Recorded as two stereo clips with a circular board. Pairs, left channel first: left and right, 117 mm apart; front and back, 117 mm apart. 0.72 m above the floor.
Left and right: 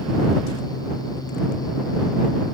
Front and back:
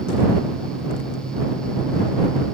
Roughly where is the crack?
I don't hear a crack.